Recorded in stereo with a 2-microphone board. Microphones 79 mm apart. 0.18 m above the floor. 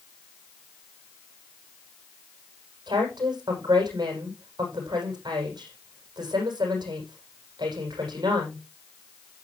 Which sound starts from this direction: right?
A woman speaking, at 2.9 s.